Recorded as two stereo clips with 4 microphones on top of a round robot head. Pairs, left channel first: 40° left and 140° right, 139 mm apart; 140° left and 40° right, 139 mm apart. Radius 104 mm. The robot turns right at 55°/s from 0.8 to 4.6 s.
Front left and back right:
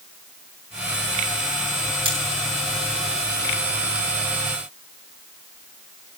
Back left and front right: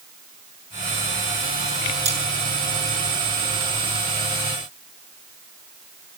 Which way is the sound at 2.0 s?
85° right.